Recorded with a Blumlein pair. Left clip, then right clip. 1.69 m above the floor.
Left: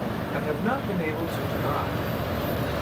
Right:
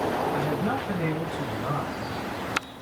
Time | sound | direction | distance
0.3 | a man speaking | 15° left | 1.6 m